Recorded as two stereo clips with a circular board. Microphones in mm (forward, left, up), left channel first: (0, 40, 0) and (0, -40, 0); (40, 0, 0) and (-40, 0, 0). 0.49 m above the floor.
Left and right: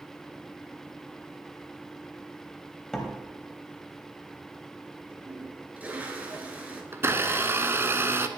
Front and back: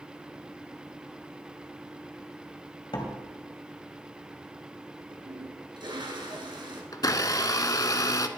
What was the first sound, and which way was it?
A door slam, 10° left.